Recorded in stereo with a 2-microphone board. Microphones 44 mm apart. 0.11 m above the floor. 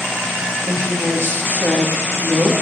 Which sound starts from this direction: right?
A woman speaking, at 0.7 s.